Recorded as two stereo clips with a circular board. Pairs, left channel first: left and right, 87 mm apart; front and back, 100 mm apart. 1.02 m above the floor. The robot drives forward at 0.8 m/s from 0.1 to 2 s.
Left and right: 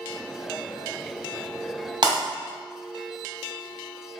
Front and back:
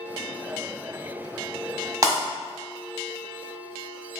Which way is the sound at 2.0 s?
120° right.